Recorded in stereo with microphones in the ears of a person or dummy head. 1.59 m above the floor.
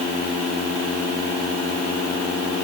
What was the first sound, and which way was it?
Only background noise.